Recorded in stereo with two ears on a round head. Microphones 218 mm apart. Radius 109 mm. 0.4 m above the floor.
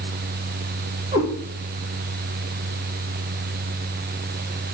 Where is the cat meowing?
20° right (ahead or behind), 5 m.